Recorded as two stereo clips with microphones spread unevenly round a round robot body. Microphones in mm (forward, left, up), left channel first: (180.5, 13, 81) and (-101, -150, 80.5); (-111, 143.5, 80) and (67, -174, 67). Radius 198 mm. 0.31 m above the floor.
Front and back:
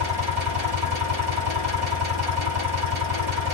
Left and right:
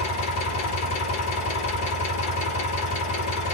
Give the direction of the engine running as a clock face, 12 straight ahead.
6 o'clock.